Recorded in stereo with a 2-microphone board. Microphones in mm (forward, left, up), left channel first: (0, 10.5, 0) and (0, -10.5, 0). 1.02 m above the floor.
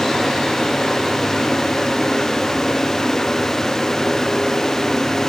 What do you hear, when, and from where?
Only background noise.